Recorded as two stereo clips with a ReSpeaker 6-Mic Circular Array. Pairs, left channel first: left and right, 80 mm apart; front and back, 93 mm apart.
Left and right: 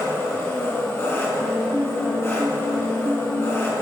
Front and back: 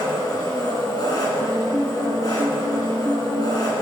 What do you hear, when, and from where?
0.0 s an engine running: 35° left, 2 m
1.4 s a piano: 135° right, 1.0 m